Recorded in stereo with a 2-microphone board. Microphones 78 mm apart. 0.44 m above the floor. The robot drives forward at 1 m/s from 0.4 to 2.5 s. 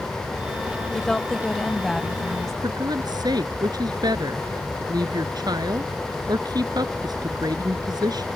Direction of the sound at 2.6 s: 60° right (ahead or behind).